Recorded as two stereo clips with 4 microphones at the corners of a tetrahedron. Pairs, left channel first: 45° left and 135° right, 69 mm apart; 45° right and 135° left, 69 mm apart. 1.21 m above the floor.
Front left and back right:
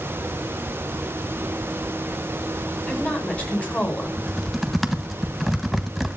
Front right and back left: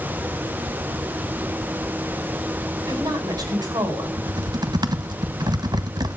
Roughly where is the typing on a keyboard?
Behind left.